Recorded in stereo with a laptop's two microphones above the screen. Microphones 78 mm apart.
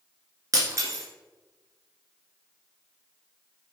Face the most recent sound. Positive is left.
turn(degrees=-45)  # may be behind; listen again after turning